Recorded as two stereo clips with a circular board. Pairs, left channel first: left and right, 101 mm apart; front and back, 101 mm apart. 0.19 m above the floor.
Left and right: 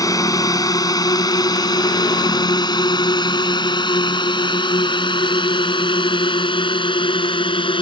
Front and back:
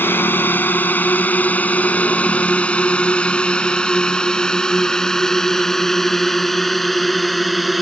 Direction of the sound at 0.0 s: 60° left.